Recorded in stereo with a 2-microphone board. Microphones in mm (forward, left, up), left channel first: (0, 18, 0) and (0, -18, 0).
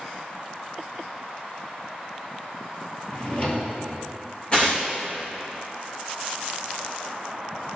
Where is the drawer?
30° left (ahead or behind), 2.5 m.